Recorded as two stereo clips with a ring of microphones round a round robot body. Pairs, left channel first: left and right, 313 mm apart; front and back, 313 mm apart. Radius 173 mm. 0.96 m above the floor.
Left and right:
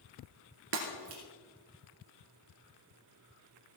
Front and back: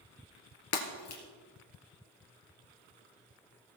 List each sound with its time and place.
0.7 s breaking glass: 35° right, 2.5 m